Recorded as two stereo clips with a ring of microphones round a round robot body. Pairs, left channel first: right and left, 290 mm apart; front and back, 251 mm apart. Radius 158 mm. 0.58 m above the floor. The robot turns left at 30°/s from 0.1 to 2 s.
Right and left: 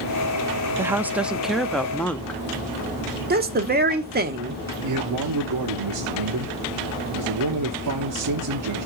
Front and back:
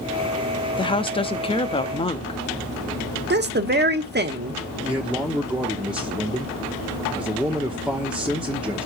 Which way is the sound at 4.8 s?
95° left.